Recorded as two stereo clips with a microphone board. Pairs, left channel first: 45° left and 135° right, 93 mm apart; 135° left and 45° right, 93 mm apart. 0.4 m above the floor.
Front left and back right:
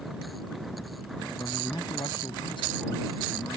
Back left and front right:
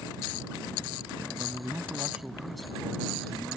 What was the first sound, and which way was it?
A man speaking, 5° left.